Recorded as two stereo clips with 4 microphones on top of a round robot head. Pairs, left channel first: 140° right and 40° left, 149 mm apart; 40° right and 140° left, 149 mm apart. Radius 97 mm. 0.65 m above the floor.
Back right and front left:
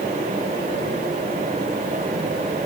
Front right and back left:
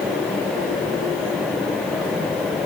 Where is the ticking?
No ticking in this recording.